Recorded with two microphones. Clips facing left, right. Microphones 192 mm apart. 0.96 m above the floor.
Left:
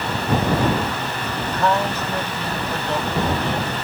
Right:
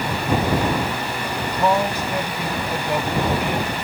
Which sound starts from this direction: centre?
A man speaking, at 1.5 s.